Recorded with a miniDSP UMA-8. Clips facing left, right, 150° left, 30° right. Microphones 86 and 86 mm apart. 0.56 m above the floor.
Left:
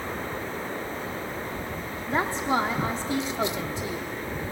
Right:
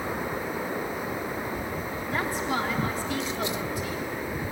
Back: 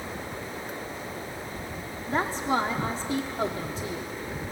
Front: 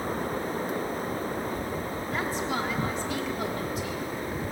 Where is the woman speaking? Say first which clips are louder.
Left 4 dB, back 6 dB; 130° left, 1.2 m.